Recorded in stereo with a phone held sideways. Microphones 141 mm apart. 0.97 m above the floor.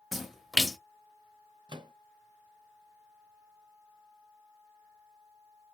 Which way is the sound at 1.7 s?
30° right (ahead or behind).